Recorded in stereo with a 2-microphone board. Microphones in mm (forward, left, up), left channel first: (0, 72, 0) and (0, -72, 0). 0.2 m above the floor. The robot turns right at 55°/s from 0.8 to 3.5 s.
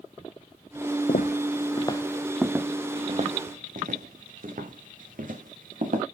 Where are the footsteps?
75° left (ahead or behind), 0.6 m; by 6.0 s 70° right (ahead or behind), 3 m.